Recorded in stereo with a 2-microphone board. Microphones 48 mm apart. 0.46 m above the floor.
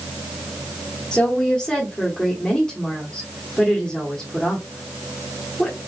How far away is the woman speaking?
About 1.3 m.